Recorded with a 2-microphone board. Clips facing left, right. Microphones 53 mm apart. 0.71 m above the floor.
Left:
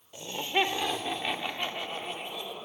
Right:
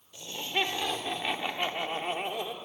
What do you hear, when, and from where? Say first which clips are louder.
0.1 s laughter: left 3 dB; 25° left (ahead or behind), 2.5 m; by 2.5 s 50° right (ahead or behind), 1.9 m